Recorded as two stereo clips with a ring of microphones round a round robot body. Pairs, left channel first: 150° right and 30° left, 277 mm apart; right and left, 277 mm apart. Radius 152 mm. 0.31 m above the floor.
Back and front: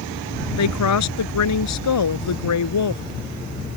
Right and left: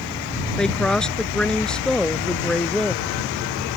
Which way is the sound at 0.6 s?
175° right.